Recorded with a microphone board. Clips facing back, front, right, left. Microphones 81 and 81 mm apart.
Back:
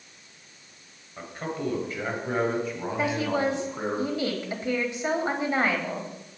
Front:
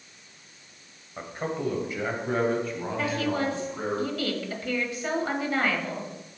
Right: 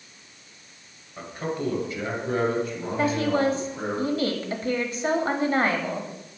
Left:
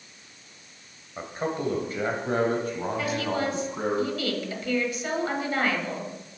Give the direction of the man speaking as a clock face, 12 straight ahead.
10 o'clock.